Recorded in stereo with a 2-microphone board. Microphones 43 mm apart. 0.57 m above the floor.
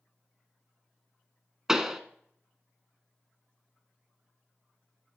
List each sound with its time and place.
1.7 s a pop: 15° right (ahead or behind), 0.8 m